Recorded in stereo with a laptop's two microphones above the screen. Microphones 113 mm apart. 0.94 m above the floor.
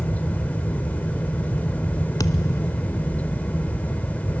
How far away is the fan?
About 1.0 m.